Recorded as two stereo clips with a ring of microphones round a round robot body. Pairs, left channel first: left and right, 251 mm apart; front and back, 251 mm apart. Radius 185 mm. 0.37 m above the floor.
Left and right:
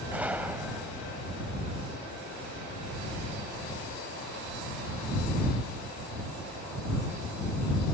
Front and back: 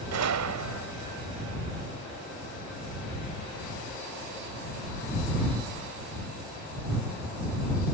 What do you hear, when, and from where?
0.1 s a gunshot: 175° right